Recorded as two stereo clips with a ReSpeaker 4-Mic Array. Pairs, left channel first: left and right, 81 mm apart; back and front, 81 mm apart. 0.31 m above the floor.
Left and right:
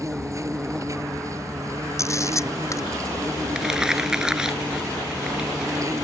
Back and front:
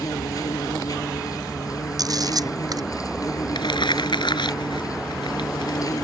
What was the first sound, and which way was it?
An insect, 140° right.